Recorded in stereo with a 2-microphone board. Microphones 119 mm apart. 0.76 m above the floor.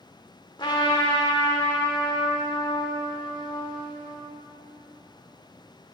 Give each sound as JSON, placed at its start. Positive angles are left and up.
{"t": 0.6, "sound": "a trumpet", "side_deg": 40, "distance_m": 0.8}